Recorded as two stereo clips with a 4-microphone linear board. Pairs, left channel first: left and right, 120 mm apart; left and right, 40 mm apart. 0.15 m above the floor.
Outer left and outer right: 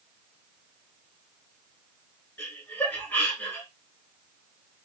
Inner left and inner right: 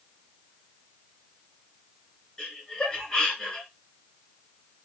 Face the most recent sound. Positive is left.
turn(degrees=15)  # may be behind; listen again after turning